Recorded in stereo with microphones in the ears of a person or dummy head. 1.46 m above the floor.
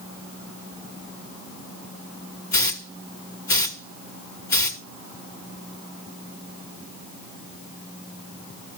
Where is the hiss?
20° left (ahead or behind), 1.4 m.